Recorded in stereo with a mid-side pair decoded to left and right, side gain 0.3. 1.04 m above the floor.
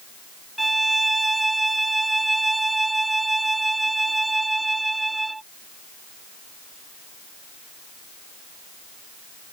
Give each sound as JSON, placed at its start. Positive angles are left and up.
{"t": 0.6, "sound": "a violin", "azimuth_deg": -25}